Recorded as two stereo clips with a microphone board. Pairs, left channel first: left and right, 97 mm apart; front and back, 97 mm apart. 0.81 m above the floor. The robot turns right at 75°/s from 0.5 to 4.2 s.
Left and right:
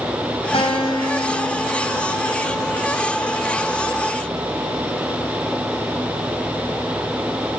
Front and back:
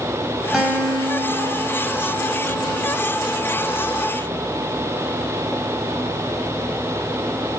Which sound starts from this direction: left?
A guitar, at 0.5 s.